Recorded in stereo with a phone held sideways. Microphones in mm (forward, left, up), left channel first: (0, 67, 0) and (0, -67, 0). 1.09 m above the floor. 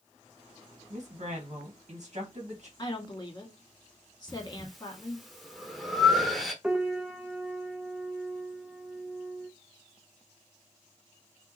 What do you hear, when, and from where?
0.9 s a woman speaking: 50° right (ahead or behind), 1.5 m
2.8 s a woman speaking: 30° left (ahead or behind), 1.8 m
4.3 s breathing: centre (ahead or behind), 0.9 m
6.6 s a piano: 10° right (ahead or behind), 0.9 m